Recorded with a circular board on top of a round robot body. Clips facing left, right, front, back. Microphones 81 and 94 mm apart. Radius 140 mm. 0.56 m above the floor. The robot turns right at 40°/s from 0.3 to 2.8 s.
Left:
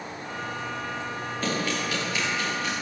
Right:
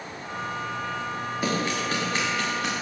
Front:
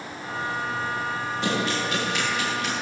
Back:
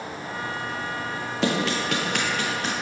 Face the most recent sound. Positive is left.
turn(degrees=-120)